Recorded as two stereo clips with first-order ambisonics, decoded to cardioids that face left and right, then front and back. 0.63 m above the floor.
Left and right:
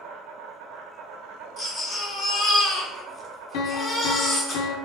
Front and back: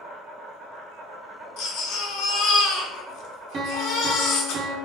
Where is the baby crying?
25° left, 0.9 m.